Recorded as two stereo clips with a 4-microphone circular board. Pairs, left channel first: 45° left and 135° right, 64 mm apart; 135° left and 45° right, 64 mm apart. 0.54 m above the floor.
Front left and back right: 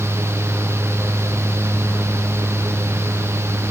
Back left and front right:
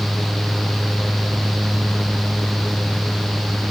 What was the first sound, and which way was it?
Only background noise.